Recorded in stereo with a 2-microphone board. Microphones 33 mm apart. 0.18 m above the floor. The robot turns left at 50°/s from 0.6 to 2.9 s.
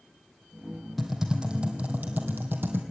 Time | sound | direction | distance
1.0 | typing on a keyboard | straight ahead | 2.5 m